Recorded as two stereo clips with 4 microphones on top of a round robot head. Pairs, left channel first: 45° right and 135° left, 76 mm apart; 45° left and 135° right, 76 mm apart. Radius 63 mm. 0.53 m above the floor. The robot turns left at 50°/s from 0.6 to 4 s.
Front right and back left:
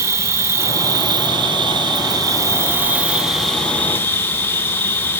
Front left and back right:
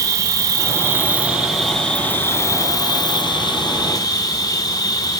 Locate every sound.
0.0 s an insect: 175° right, 2.0 m; by 5.2 s 15° left, 2.0 m